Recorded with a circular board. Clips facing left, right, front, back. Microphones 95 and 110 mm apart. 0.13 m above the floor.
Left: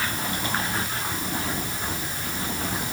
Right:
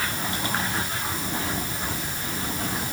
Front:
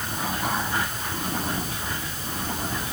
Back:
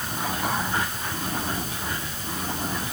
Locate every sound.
Only background noise.